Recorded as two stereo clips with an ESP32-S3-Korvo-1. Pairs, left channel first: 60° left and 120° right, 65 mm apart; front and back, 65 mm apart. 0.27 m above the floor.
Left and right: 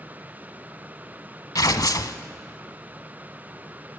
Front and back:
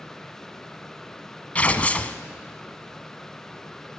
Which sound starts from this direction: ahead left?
Tearing paper, at 1.6 s.